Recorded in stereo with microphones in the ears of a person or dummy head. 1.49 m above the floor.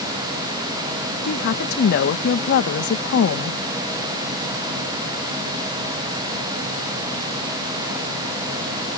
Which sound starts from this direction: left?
A woman speaking, at 1.2 s.